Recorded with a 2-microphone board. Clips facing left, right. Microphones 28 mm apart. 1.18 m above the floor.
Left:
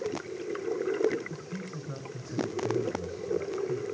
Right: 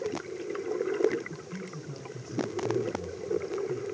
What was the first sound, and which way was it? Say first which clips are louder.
A man speaking: left 1 dB; 65° left (ahead or behind).